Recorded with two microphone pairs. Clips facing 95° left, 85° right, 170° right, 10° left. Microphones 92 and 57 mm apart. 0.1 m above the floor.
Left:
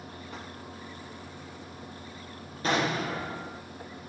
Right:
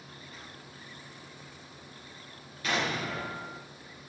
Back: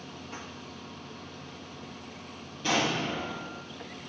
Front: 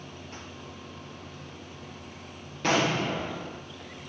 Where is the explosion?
40° left, 4 m.